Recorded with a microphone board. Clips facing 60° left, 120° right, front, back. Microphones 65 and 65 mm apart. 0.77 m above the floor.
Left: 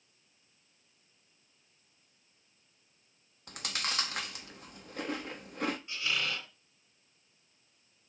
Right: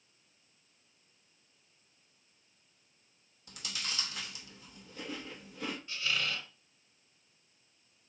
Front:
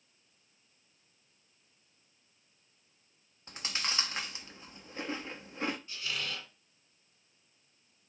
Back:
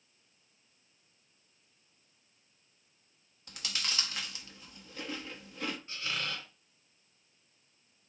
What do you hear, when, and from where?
3.5 s chewing: 55° left, 0.8 m
5.9 s a squeak: 130° left, 2.5 m